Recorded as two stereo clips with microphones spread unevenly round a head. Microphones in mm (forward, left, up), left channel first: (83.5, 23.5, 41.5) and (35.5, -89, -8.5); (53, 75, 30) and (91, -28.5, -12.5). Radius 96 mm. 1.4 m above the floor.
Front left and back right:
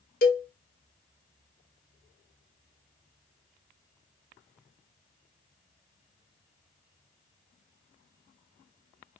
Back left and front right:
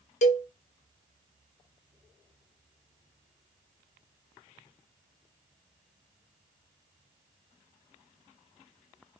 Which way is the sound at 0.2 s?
95° left.